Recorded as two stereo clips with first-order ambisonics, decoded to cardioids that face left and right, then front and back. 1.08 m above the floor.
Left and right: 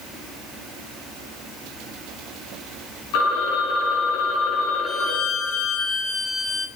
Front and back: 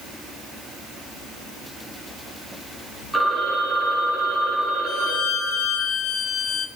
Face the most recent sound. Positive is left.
turn(degrees=30)